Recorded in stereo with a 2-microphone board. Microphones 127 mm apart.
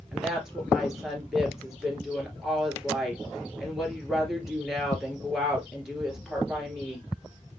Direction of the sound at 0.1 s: 5° right (ahead or behind).